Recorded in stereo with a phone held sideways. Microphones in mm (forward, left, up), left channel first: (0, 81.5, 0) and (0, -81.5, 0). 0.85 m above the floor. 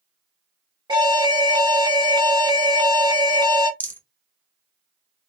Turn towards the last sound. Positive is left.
turn(degrees=10)  # may be behind; listen again after turning